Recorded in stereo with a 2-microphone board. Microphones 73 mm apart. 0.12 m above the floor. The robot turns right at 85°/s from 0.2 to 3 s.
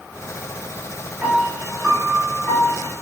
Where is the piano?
20° right (ahead or behind), 0.8 m; by 2.9 s 25° left (ahead or behind), 0.8 m.